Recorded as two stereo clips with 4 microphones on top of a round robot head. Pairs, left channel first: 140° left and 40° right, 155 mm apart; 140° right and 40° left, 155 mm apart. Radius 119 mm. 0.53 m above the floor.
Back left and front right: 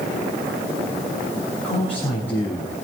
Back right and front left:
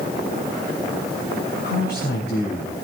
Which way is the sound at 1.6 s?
140° right.